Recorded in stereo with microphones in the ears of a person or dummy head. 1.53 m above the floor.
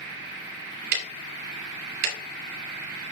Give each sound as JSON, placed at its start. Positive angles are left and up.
{"t": 0.9, "sound": "ticking", "side_deg": -60, "distance_m": 1.6}